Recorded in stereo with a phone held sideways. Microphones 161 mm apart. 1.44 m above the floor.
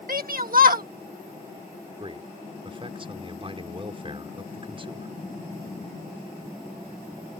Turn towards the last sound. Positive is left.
turn(degrees=-35)  # may be behind; listen again after turning